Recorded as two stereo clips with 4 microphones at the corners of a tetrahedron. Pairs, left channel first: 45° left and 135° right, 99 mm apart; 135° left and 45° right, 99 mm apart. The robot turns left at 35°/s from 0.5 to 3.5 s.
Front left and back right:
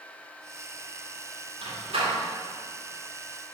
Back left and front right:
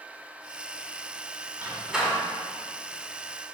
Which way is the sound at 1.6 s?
120° right.